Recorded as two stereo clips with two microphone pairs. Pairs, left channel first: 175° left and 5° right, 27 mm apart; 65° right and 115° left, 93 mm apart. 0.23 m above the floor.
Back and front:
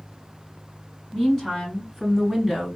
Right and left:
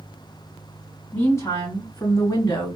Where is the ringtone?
I don't hear a ringtone.